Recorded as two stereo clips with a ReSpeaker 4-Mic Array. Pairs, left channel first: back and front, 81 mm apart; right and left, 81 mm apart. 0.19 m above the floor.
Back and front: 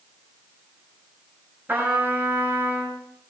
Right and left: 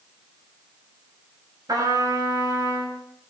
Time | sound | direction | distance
1.7 | a trumpet | 60° left | 3.5 m